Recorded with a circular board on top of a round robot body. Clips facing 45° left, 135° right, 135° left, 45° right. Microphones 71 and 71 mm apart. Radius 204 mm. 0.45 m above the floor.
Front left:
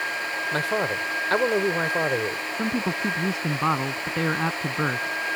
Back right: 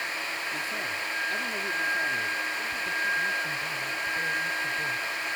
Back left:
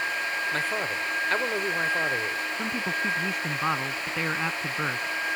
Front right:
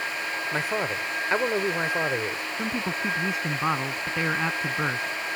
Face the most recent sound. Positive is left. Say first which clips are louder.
# front left 5 dB, front right 2 dB
turn(degrees=40)